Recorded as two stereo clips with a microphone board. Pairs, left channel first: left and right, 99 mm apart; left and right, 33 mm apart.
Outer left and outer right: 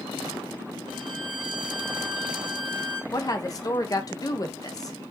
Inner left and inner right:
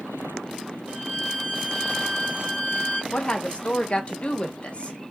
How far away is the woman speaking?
About 0.6 m.